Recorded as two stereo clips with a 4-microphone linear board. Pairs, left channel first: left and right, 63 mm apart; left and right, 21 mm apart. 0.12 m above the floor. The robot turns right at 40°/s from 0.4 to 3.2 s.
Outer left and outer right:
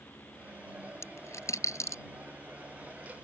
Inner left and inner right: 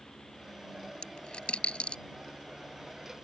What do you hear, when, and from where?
1.0 s a dropped coin: 50° left (ahead or behind); by 2.0 s 55° left (ahead or behind)